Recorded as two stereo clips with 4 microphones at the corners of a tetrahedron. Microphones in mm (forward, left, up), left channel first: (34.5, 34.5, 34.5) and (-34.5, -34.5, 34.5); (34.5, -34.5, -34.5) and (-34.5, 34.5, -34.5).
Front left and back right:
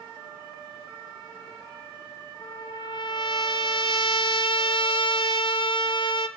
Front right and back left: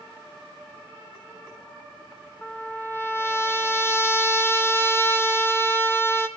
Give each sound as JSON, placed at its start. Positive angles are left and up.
{"t": 2.4, "sound": "a trumpet", "azimuth_deg": 20, "distance_m": 1.1}